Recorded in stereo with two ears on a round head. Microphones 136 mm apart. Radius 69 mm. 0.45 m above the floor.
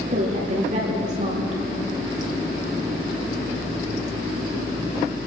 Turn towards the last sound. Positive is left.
turn(degrees=-50)  # may be behind; listen again after turning